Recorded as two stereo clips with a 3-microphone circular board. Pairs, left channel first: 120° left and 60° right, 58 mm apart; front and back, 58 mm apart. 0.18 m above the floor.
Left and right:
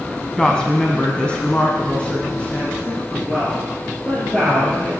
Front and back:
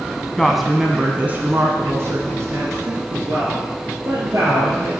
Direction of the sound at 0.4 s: 70° left.